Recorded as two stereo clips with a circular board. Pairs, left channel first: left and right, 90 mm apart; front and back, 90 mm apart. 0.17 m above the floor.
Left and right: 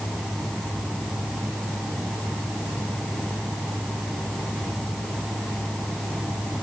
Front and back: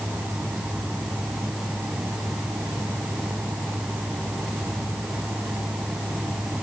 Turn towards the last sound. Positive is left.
No sound to turn to.